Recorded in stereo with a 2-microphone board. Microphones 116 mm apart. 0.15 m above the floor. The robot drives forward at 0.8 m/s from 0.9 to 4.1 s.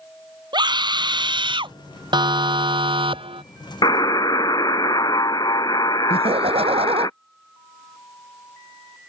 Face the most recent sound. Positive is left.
turn(degrees=-55)  # may be behind; listen again after turning